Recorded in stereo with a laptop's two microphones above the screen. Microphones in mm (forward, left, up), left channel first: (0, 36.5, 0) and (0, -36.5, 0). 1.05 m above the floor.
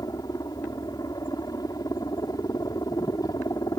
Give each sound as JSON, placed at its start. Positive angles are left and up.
{"t": 0.0, "sound": "a helicopter", "side_deg": 60}